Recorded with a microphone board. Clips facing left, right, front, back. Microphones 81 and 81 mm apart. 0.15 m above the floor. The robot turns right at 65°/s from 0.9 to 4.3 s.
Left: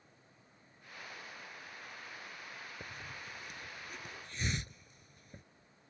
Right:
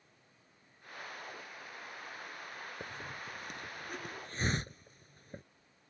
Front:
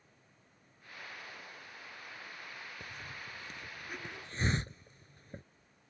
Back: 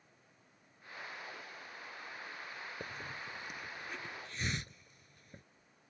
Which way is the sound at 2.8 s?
150° right.